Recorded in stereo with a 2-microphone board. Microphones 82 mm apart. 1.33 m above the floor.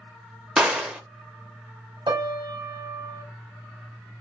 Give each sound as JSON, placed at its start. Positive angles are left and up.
{"t": 0.6, "sound": "a gunshot", "side_deg": -10, "distance_m": 0.6}
{"t": 2.1, "sound": "a piano", "side_deg": -65, "distance_m": 0.6}